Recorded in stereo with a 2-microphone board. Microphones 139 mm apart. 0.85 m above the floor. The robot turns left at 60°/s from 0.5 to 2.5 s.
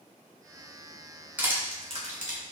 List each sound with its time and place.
1.4 s crushing: 10° right (ahead or behind), 0.9 m; by 2.4 s 70° right (ahead or behind), 0.9 m